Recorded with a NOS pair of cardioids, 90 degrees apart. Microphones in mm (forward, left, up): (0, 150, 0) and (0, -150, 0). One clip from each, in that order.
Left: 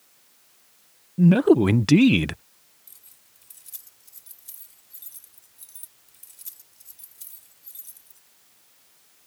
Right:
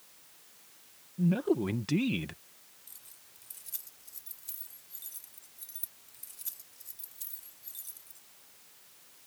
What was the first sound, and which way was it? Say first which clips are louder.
A man speaking: left 12 dB; 60° left.